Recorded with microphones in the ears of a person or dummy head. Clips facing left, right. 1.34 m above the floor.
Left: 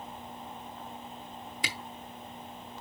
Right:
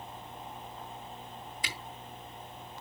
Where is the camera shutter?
55° left (ahead or behind), 2.0 m.